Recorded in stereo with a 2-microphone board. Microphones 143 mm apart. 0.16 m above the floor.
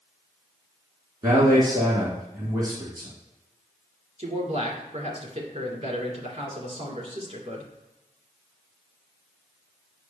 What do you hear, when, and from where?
1.2 s a man speaking: 25° right (ahead or behind), 2 m
4.2 s a man speaking: 45° right (ahead or behind), 2.5 m